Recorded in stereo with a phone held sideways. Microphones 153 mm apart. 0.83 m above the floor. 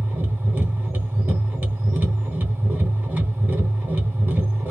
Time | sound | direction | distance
0.0 | a machine running | 10° right (ahead or behind) | 1.0 m